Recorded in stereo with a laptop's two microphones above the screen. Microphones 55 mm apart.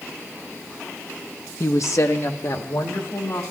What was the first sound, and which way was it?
A woman speaking, 60° left (ahead or behind).